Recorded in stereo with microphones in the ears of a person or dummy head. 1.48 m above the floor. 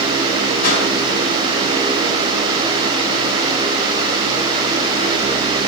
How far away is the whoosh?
About 2.5 m.